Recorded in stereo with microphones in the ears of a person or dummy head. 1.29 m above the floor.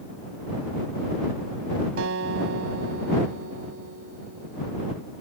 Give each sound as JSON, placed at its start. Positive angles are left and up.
{"t": 2.0, "sound": "a guitar", "side_deg": -85}